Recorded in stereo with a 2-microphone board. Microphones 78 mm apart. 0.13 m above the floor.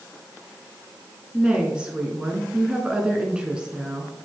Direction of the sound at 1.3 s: 15° right (ahead or behind).